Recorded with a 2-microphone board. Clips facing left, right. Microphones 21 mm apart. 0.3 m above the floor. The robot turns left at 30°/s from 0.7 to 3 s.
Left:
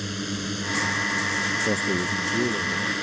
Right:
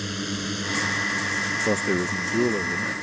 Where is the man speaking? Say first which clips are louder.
Right 1 dB; 20° right; by 2.9 s 55° right.